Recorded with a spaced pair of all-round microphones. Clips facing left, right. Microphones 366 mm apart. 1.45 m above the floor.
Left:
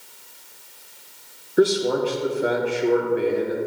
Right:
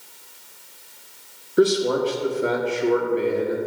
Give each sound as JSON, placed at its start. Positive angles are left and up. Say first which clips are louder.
{"t": 1.6, "sound": "a man speaking", "louder": "even", "side_deg": -5, "distance_m": 0.9}